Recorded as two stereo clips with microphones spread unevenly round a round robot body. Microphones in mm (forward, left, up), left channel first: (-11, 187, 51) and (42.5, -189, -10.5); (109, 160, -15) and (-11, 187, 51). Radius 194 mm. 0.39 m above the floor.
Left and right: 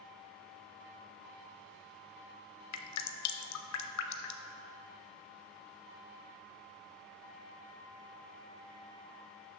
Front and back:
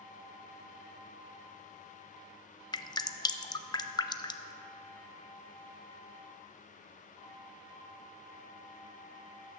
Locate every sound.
2.7 s dripping: 45° left, 0.6 m